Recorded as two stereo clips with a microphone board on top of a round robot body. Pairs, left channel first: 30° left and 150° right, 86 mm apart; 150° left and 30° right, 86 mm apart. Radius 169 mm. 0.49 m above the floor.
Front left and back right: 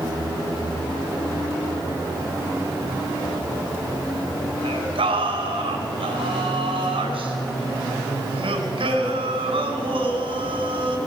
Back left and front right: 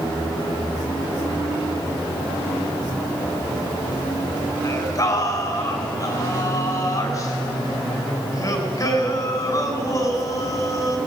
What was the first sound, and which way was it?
Singing, 160° right.